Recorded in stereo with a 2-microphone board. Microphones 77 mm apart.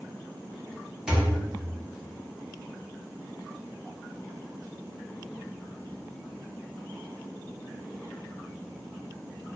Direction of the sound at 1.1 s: 10° right (ahead or behind).